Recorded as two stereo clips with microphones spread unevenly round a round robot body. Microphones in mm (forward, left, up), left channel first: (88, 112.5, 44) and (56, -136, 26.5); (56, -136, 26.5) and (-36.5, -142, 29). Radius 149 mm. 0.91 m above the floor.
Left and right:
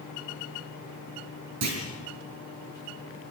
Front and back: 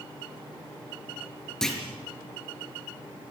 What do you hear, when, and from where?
1.6 s a clunk: 80° right, 6 m